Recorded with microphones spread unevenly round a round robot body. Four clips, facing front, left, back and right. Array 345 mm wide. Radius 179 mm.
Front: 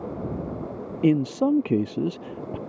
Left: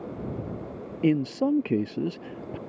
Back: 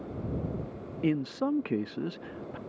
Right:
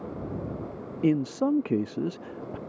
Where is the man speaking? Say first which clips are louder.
Left 1 dB, front 8 dB; 5° left.